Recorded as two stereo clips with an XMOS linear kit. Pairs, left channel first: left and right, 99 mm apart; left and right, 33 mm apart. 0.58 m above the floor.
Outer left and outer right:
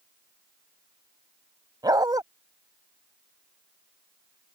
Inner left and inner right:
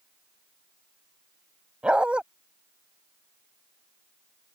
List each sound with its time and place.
1.8 s a dog barking: 40° right (ahead or behind)